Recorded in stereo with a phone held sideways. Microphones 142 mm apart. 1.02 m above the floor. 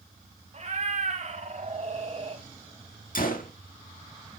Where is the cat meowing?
50° right (ahead or behind), 1.6 m; by 2.4 s 40° right (ahead or behind), 1.0 m.